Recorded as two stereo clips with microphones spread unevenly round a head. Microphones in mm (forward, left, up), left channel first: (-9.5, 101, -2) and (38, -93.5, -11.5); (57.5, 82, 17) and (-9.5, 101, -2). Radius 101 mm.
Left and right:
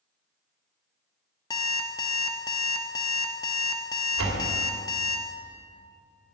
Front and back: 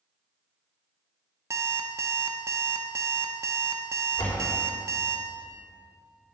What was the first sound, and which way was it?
An alarm clock, 145° left.